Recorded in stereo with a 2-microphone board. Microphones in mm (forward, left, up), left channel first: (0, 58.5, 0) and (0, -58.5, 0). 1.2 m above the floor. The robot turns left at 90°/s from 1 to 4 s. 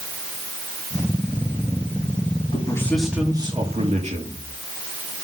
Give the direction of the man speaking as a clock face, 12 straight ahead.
11 o'clock.